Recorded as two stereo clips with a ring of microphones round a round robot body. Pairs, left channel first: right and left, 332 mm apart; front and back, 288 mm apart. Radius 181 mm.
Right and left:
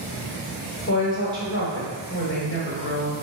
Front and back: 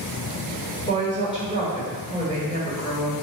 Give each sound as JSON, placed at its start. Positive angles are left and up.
{"t": 0.9, "sound": "a woman speaking", "azimuth_deg": -65, "distance_m": 1.8}